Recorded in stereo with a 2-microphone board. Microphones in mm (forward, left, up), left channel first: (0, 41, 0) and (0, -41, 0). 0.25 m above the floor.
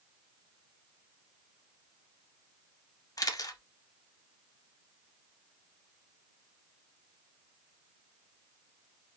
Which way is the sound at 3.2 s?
50° left (ahead or behind).